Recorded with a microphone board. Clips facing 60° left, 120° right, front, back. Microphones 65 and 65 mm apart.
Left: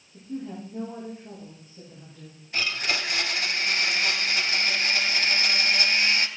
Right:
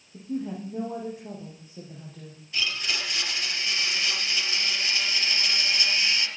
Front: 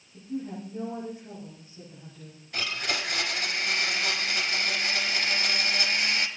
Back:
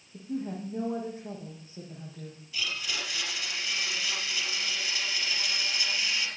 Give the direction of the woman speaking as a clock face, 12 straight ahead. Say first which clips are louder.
Right 3 dB, even; 4 o'clock.